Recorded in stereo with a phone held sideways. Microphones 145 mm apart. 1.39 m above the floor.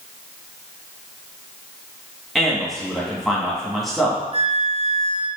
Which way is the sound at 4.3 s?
40° right (ahead or behind).